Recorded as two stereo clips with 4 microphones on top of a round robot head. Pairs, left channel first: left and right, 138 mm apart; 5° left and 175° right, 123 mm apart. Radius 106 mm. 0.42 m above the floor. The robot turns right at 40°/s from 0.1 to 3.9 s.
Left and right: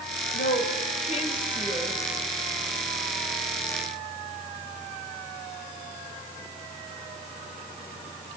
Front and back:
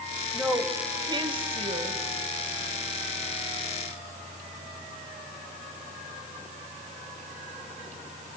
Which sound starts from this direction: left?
A woman speaking, at 0.3 s.